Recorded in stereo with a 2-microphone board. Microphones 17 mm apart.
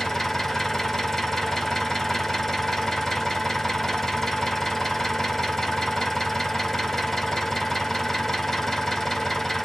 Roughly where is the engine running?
Left.